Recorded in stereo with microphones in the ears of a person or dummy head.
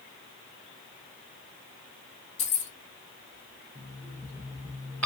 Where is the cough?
No cough in this recording.